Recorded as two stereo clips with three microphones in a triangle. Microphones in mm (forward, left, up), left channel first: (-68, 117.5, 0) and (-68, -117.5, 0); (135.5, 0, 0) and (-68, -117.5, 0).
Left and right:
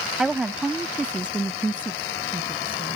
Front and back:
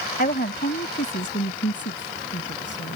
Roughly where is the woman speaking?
Ahead.